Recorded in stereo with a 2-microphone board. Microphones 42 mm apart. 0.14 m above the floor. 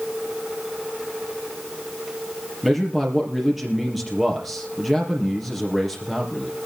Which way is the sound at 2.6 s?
5° right (ahead or behind).